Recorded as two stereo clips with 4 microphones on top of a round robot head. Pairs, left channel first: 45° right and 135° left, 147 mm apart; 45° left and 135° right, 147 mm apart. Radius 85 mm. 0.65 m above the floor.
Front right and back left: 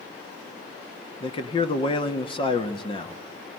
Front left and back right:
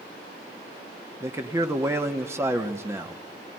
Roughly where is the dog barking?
No dog barking in this recording.